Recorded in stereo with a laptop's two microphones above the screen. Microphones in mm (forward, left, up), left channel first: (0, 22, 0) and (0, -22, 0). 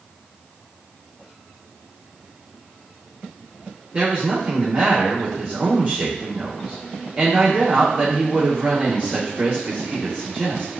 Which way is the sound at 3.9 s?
30° right (ahead or behind).